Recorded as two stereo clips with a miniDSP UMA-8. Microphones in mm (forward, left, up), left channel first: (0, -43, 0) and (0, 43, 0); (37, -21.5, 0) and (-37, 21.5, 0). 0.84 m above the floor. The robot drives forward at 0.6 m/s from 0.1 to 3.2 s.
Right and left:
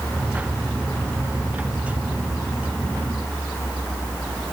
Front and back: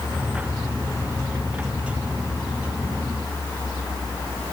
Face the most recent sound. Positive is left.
No sound to turn to.